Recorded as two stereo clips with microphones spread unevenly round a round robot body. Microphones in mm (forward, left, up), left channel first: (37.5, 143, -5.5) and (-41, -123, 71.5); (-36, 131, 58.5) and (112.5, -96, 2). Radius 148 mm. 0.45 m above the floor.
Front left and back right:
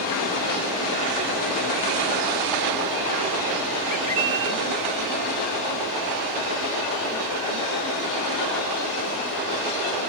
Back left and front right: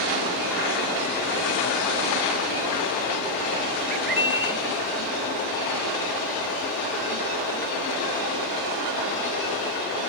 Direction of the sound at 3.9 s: 5° right.